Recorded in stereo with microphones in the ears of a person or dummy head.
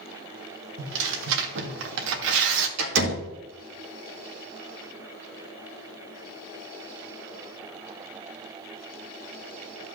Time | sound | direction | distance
0.8 | tearing paper | 70° right (ahead or behind) | 1.4 m
2.8 | a door slam | 75° right (ahead or behind) | 2 m